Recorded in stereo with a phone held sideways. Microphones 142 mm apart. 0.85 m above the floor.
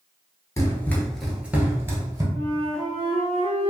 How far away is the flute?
About 0.6 m.